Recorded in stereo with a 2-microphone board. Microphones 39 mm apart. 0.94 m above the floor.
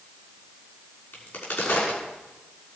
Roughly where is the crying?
I don't hear crying.